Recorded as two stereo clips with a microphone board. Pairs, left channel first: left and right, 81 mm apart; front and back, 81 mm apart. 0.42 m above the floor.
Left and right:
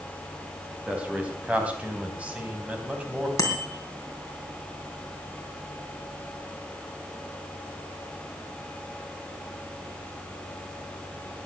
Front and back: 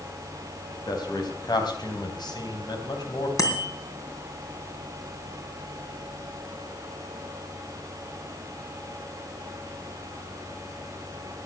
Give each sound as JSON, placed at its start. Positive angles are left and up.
{"t": 0.9, "sound": "a man speaking", "azimuth_deg": -15, "distance_m": 3.5}
{"t": 3.4, "sound": "a bicycle bell", "azimuth_deg": 40, "distance_m": 3.5}